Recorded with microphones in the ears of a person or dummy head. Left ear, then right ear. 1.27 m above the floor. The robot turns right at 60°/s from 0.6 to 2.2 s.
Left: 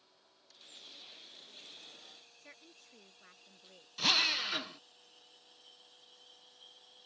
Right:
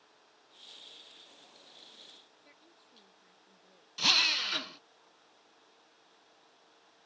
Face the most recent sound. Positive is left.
turn(degrees=-5)  # may be behind; listen again after turning